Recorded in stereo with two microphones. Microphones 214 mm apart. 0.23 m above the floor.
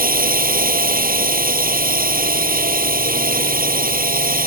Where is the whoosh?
I don't hear a whoosh.